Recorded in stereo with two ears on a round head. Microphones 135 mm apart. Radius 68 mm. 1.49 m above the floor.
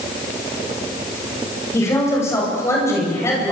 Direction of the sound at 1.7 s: 20° left (ahead or behind).